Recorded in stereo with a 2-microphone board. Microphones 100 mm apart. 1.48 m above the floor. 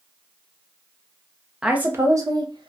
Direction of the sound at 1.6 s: 10° right (ahead or behind).